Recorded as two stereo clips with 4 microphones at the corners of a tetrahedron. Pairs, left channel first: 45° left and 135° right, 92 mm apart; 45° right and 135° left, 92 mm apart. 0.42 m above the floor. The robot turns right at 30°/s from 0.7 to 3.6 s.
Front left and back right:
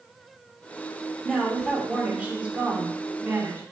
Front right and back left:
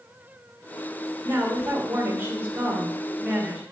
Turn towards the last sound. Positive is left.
turn(degrees=-155)